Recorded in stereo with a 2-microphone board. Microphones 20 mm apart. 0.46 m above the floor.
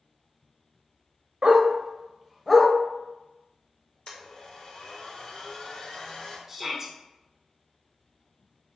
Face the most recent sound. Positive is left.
turn(degrees=-15)  # may be behind; listen again after turning